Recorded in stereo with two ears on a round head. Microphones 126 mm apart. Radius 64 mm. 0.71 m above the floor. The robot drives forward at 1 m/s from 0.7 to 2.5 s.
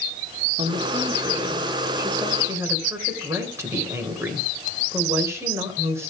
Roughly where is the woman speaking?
Right.